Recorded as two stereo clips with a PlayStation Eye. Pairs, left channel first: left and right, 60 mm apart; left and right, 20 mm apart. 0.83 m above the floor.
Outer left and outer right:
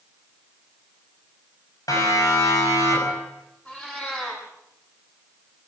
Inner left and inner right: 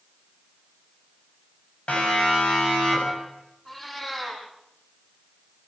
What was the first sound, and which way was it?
A siren, 70° left (ahead or behind).